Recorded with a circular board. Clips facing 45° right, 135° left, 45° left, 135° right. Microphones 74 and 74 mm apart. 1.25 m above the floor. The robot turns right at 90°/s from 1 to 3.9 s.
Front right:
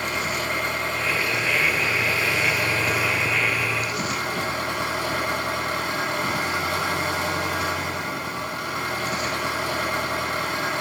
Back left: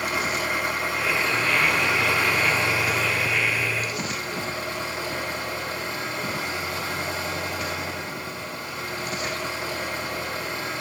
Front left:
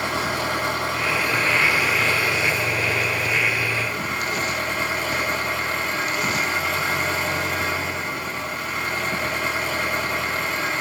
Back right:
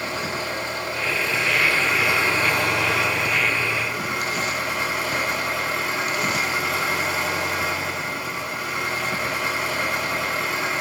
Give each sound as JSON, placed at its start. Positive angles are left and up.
{"t": 0.0, "sound": "an engine running", "azimuth_deg": 50, "distance_m": 9.5}